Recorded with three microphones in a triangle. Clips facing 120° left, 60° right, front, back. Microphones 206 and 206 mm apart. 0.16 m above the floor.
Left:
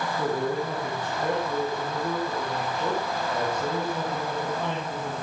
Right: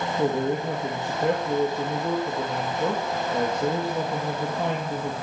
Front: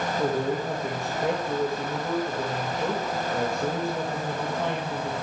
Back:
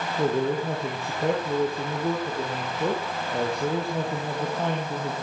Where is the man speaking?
125° right, 3.5 m.